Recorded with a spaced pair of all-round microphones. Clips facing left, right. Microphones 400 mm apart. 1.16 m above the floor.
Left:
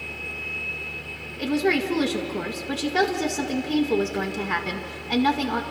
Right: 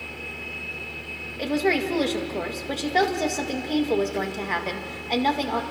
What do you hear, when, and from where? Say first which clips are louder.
1.4 s a woman speaking: left 1 dB; 25° left (ahead or behind), 1.8 m